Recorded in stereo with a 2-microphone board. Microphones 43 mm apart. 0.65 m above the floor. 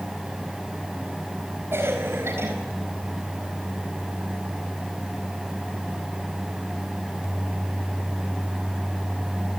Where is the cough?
75° right (ahead or behind), 4.5 m.